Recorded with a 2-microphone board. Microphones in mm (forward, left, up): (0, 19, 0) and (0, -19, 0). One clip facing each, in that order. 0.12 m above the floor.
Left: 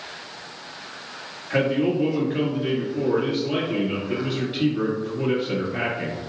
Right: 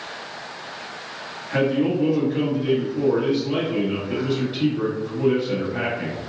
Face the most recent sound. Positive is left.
turn(degrees=10)  # may be behind; listen again after turning